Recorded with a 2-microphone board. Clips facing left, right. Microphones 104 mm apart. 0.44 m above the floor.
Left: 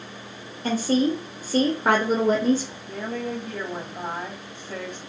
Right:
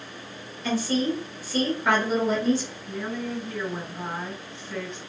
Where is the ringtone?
No ringtone in this recording.